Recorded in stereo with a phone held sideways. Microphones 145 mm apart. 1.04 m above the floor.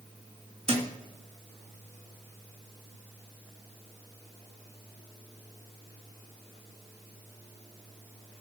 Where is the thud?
45° right (ahead or behind), 1.5 m.